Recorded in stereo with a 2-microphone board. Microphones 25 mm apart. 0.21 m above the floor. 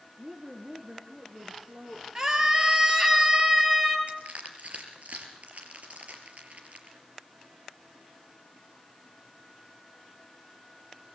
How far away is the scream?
About 3.5 m.